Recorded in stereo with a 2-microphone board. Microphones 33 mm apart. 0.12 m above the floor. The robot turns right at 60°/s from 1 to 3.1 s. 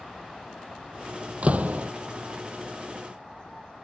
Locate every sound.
1.4 s a door slam: 45° right (ahead or behind); by 1.9 s 70° right (ahead or behind)